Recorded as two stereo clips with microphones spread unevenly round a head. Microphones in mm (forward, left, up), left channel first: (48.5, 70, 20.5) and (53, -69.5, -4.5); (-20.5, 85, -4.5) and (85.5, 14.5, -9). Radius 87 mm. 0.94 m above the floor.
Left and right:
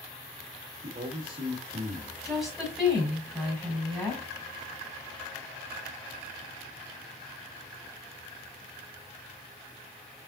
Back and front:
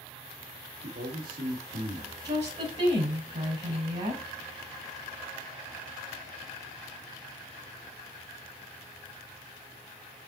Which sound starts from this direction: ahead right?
A man speaking, at 0.8 s.